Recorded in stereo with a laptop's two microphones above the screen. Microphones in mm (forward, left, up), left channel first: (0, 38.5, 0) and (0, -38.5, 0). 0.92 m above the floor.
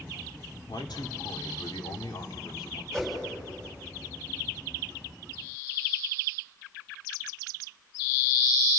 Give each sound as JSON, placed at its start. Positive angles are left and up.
{"t": 0.7, "sound": "a man speaking", "side_deg": 80, "distance_m": 2.5}
{"t": 2.9, "sound": "a whoosh", "side_deg": 5, "distance_m": 4.0}